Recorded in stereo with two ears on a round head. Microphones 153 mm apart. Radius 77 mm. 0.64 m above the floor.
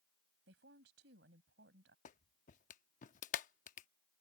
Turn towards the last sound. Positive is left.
turn(degrees=45)  # may be behind; listen again after turning